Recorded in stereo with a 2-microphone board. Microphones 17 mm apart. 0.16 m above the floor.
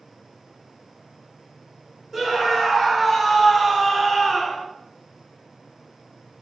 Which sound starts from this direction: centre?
A scream, at 2.1 s.